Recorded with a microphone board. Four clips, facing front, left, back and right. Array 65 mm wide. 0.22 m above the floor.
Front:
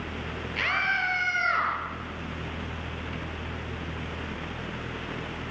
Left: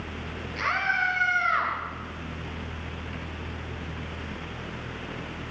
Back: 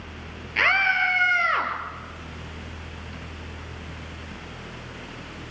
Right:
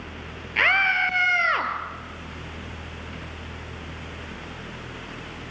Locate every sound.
0.6 s a scream: 125° right, 4.5 m; by 1.7 s 110° right, 5 m